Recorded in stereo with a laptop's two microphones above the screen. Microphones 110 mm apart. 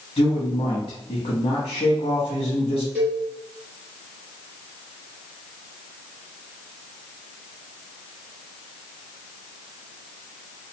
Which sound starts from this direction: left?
A man speaking, at 0.2 s.